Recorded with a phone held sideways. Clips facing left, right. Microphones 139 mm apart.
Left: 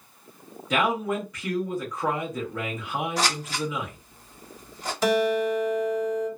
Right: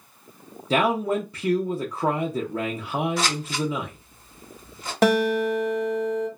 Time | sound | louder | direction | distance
0.7 | a man speaking | right 3 dB | 30° right (ahead or behind) | 0.6 m
3.2 | scissors | right 2 dB | 40° left (ahead or behind) | 1.5 m
5.0 | a guitar | right 2 dB | 65° right (ahead or behind) | 1.1 m